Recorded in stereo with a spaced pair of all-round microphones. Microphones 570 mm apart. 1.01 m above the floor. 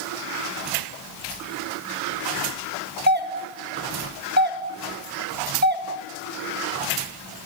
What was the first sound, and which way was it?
A doorbell, 20° right (ahead or behind).